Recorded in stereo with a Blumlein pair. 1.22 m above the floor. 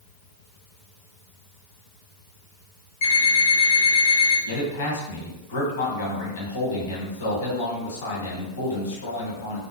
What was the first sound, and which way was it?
An alarm clock, 55° left.